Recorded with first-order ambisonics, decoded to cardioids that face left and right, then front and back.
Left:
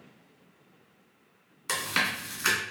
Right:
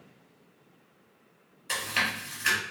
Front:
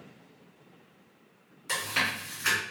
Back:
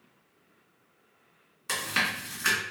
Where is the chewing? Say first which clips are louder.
Even, back 1 dB; 110° left, 1.5 m.